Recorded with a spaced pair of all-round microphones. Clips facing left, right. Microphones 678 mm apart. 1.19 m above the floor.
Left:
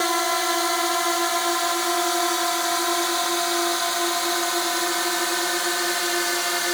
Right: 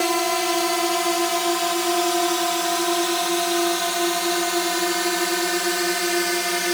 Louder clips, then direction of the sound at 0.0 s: Right 4 dB; 60° right (ahead or behind).